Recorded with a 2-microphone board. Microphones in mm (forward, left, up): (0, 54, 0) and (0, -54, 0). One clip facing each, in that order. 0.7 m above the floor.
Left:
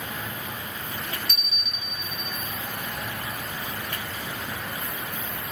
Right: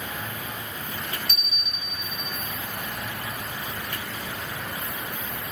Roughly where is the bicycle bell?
Right.